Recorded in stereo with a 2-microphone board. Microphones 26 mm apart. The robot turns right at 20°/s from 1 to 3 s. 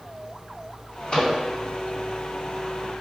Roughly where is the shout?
I don't hear a shout.